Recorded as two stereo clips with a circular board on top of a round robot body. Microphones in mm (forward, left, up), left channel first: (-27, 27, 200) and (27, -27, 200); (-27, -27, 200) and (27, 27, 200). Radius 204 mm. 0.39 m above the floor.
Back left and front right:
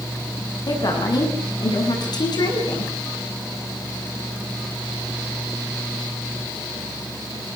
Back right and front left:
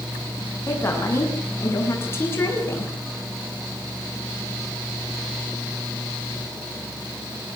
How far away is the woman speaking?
About 7.5 m.